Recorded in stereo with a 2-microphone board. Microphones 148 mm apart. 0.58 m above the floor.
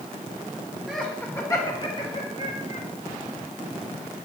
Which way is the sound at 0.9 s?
Centre (ahead or behind).